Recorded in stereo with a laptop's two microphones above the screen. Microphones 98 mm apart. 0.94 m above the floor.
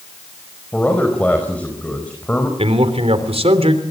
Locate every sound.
0.7 s a man speaking: 15° left (ahead or behind), 4.5 m
2.6 s a man speaking: 80° right, 3 m